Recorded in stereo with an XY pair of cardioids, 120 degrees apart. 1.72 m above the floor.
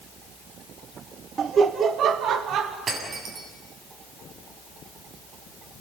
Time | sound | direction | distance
1.4 | laughter | 40° right | 1.0 m
2.9 | breaking glass | 45° right | 7 m